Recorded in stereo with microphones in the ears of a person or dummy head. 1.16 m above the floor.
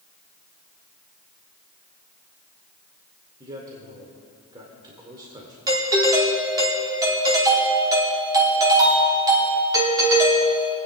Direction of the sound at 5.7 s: 25° right (ahead or behind).